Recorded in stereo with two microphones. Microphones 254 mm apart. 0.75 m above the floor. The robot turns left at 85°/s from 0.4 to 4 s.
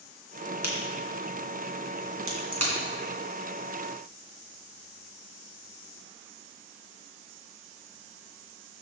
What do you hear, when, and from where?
0.6 s a crack: 80° left, 2.5 m; by 2.7 s 80° right, 2.5 m